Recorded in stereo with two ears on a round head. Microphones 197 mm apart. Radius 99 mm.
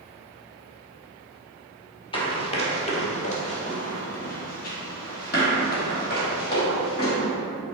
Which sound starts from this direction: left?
Running footsteps, at 2.1 s.